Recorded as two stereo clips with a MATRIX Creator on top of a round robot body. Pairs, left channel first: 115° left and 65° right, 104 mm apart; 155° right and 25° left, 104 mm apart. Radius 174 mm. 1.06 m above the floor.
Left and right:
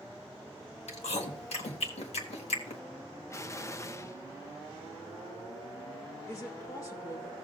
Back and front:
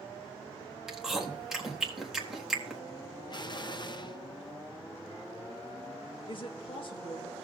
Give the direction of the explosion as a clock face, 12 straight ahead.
6 o'clock.